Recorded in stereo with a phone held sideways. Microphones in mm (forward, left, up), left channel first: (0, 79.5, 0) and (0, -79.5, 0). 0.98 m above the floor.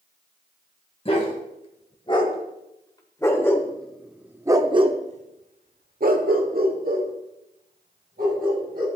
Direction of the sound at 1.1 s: 40° left (ahead or behind).